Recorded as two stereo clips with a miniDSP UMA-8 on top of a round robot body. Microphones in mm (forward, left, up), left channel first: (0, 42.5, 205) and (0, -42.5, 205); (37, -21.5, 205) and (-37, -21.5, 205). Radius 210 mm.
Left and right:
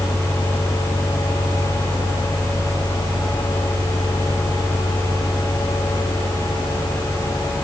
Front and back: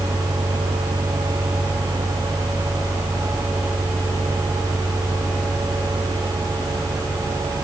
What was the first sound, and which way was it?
Only background noise.